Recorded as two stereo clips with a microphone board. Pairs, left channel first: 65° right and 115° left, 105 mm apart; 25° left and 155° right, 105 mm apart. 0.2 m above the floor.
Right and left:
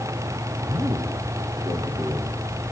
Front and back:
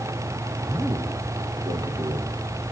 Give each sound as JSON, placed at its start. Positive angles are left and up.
{"t": 0.7, "sound": "a man speaking", "azimuth_deg": 145, "distance_m": 2.5}